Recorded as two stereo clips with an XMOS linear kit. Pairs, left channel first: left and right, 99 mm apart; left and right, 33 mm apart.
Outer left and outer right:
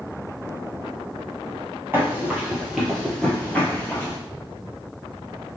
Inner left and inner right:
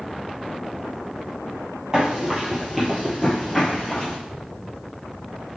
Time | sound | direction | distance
1.9 | running footsteps | 20° right (ahead or behind) | 1.5 m